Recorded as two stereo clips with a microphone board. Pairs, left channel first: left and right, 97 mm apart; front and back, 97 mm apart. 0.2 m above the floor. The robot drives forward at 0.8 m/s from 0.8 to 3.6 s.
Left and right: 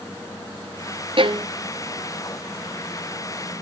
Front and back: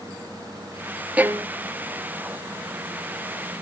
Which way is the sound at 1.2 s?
105° right.